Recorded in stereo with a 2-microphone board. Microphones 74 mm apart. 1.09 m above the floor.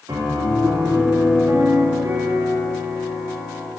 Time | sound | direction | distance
0.1 | a piano | 65° right (ahead or behind) | 2 m